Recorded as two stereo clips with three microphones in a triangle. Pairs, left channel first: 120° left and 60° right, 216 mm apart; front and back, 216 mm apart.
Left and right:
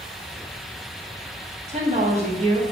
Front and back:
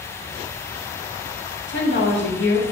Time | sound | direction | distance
1.7 | a woman speaking | 5° right | 1.7 m